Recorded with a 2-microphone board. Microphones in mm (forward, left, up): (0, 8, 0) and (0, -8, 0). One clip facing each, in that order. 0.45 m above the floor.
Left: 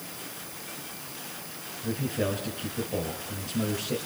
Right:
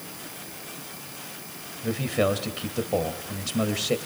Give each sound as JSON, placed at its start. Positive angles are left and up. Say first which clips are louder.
{"t": 1.8, "sound": "a man speaking", "louder": "right 5 dB", "side_deg": -60, "distance_m": 2.5}